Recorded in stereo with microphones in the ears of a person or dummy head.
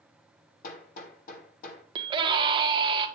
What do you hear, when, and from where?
0.6 s hammering: 50° left (ahead or behind), 2.5 m
1.9 s a scream: 30° right (ahead or behind), 1.5 m